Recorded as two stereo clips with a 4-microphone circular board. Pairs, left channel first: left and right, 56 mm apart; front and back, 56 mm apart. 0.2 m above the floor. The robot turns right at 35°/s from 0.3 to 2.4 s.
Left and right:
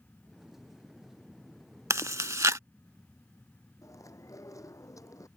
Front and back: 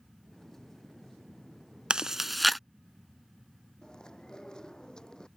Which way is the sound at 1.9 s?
105° right.